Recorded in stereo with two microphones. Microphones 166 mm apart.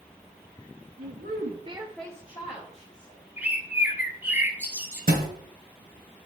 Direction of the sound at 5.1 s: 65° right (ahead or behind).